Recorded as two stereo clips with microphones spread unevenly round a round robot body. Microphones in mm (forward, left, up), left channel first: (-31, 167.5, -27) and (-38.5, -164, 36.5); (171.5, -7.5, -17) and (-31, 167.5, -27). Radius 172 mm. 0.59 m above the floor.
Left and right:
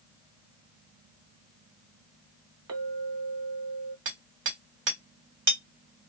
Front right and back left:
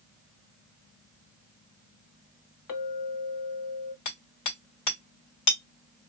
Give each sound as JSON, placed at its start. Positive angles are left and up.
{"t": 2.7, "sound": "a clink", "azimuth_deg": -40, "distance_m": 1.2}
{"t": 4.0, "sound": "hammering", "azimuth_deg": -30, "distance_m": 2.5}